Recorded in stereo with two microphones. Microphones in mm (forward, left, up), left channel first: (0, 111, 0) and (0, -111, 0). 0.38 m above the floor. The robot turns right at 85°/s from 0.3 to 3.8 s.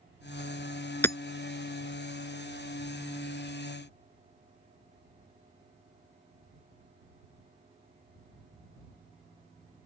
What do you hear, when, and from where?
1.0 s hammering: 10° left (ahead or behind); by 1.2 s 20° left (ahead or behind)